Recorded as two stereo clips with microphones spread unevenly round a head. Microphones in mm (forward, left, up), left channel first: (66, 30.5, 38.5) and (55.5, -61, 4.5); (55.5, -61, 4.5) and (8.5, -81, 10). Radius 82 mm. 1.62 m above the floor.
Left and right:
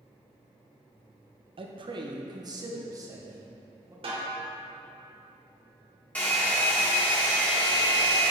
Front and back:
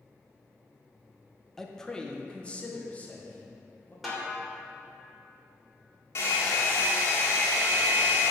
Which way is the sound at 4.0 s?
70° right.